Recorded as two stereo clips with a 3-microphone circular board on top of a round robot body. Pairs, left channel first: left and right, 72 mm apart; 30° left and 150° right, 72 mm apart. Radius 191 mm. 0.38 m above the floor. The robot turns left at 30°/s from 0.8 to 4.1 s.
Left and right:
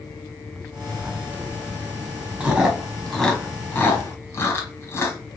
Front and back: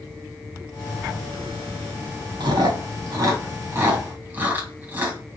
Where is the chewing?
160° right, 1.8 m; by 5.2 s 145° left, 1.8 m.